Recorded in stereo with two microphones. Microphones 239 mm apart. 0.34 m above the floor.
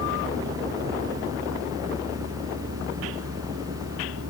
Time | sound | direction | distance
0.0 | a vehicle | 80° right | ?